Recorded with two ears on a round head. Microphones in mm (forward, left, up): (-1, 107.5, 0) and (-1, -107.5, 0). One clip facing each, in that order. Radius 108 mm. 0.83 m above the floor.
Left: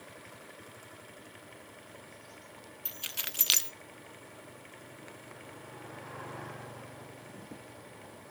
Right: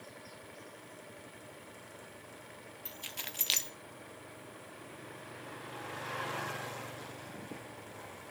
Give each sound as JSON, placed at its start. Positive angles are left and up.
{"t": 2.9, "sound": "keys jangling", "side_deg": 15, "distance_m": 0.7}